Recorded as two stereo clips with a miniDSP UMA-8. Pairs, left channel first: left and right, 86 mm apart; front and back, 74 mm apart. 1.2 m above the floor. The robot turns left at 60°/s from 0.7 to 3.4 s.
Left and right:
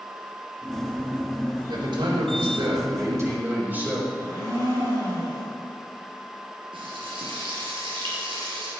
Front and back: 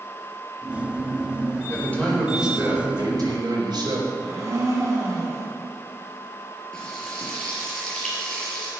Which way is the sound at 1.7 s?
55° right.